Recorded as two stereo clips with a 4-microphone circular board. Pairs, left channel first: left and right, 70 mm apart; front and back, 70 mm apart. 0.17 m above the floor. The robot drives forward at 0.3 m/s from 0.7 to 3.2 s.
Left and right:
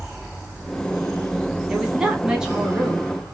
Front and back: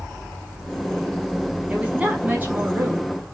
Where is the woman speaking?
150° right, 1.2 m; by 3.3 s 165° right, 1.4 m.